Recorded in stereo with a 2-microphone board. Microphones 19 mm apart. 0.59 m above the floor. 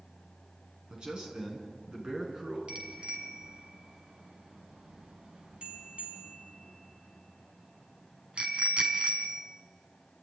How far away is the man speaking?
About 7 m.